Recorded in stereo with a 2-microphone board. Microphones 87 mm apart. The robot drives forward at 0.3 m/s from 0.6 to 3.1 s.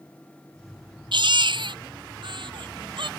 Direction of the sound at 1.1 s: 65° right (ahead or behind).